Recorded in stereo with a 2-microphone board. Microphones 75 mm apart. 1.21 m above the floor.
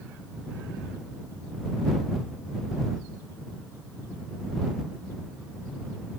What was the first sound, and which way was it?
Only background noise.